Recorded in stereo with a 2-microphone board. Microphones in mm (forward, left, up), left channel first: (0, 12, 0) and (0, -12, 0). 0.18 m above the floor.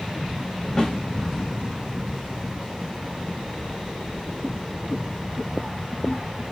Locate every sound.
0.8 s a snare drum: 30° left (ahead or behind), 1.8 m